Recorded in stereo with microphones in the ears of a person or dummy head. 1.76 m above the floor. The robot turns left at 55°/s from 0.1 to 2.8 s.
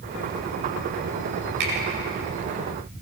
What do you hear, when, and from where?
1.6 s a finger snap: 65° right (ahead or behind), 9.5 m; by 1.7 s 70° right (ahead or behind), 9.5 m